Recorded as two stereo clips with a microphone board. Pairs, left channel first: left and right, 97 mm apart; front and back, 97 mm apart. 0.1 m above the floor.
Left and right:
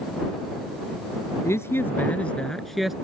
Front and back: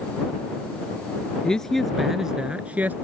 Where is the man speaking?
75° left; by 2.9 s 170° right.